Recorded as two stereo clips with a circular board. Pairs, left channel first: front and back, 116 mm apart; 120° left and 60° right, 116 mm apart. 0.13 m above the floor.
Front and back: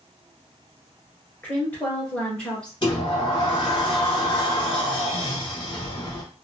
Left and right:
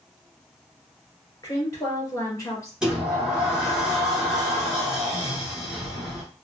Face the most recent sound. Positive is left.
turn(degrees=20)